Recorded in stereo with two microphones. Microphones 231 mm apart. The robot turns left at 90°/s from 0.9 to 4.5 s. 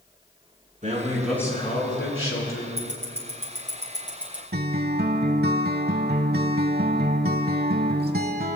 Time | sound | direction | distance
0.8 | a man speaking | 145° right | 4 m
2.8 | ticking | 45° left (ahead or behind) | 3 m
4.5 | a guitar | 45° right (ahead or behind) | 0.6 m